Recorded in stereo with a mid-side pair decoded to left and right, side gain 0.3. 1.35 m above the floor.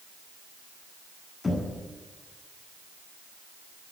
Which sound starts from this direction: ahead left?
Knocking, at 1.4 s.